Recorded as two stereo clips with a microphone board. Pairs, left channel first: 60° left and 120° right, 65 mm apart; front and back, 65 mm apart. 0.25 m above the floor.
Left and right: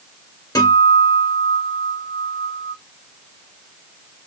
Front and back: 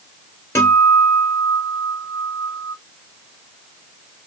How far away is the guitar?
About 2 m.